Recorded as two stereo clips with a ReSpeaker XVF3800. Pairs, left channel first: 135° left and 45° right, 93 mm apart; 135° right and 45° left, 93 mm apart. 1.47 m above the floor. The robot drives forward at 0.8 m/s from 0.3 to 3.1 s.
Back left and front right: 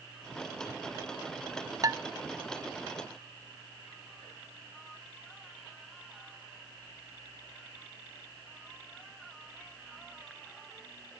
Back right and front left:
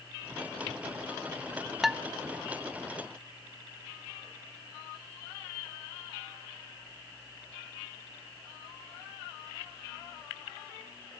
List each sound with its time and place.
1.8 s dishes clattering: 40° right, 0.5 m; by 2.0 s 60° right, 0.5 m